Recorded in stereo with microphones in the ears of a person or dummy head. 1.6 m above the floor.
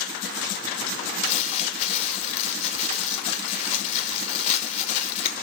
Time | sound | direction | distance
1.2 | crumpling | 35° left (ahead or behind) | 1.3 m